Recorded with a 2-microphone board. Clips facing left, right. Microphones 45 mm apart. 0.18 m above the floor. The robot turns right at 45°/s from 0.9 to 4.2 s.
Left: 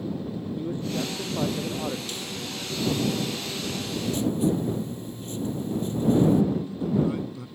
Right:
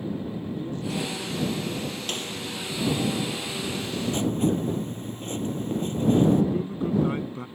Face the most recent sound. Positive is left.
turn(degrees=-40)  # may be behind; listen again after turning